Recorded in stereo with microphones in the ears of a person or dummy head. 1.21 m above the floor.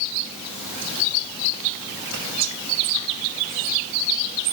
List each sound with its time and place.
2.1 s whispering: 75° right (ahead or behind), 2.5 m